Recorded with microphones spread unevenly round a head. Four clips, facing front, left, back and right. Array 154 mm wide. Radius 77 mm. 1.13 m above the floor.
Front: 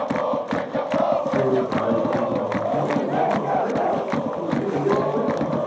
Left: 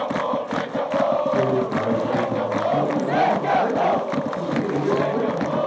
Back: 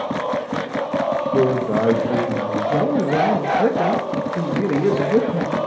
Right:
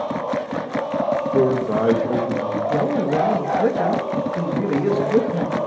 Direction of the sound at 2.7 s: 155° right.